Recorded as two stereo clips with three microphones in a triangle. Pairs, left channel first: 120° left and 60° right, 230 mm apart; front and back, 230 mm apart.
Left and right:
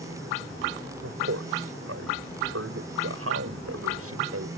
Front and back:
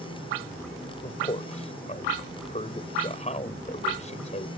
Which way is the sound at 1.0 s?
60° right.